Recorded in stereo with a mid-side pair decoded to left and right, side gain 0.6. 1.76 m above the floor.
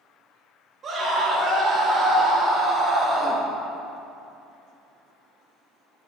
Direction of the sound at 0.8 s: 40° right.